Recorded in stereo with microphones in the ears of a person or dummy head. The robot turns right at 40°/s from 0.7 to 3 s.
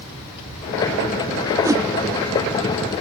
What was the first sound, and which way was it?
A whoosh, 15° right (ahead or behind).